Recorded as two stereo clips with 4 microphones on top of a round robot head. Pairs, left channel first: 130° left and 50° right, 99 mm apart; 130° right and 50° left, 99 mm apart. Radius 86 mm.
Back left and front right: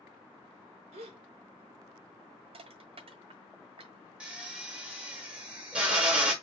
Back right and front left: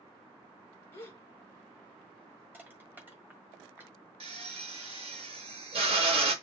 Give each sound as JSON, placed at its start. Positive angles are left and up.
{"t": 0.9, "sound": "a gasp", "azimuth_deg": -65, "distance_m": 0.6}
{"t": 2.5, "sound": "crushing", "azimuth_deg": -20, "distance_m": 1.6}
{"t": 4.2, "sound": "a drill", "azimuth_deg": 30, "distance_m": 1.3}